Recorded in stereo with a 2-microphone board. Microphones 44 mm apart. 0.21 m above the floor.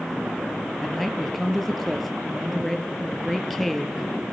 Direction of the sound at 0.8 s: 5° left (ahead or behind).